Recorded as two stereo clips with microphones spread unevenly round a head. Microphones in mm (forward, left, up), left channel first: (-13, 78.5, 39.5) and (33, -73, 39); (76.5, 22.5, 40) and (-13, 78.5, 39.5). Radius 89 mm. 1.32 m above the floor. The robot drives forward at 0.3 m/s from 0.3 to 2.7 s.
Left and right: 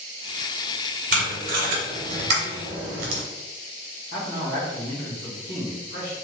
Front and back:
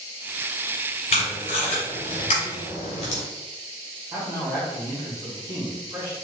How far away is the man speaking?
About 1.4 m.